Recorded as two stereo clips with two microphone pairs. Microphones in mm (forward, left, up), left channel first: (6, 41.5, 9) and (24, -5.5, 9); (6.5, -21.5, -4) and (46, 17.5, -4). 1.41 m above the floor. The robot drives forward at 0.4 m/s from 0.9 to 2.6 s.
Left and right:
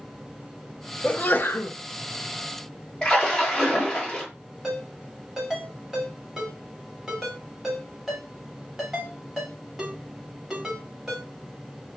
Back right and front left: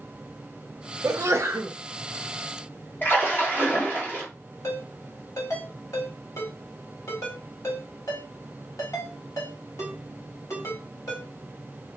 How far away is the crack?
I don't hear a crack.